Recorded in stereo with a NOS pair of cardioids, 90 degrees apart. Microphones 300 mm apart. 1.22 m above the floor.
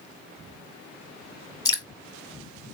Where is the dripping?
15° left, 1.3 m.